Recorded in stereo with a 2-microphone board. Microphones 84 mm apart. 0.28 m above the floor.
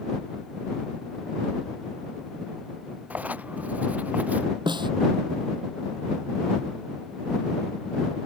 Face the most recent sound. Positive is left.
turn(degrees=-60)  # may be behind; listen again after turning